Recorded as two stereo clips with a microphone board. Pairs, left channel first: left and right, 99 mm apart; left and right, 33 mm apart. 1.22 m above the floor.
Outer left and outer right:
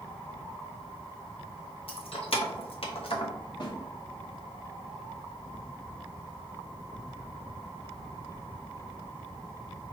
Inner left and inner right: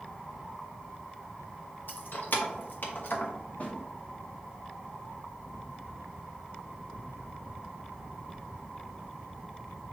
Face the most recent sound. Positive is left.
turn(degrees=50)  # may be behind; listen again after turning